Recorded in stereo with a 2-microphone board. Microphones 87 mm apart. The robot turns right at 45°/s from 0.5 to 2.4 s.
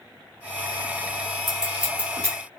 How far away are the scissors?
About 2.5 m.